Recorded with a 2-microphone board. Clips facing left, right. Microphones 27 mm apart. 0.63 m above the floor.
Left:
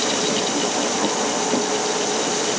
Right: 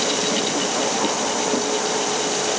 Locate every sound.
Only background noise.